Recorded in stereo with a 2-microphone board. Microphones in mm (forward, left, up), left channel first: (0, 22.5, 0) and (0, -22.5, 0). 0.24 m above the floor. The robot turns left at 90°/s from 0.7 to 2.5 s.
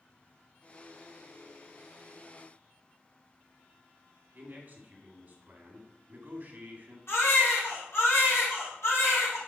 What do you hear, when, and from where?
4.3 s a man speaking: 40° right (ahead or behind), 2 m
7.1 s a baby crying: 65° left (ahead or behind), 4 m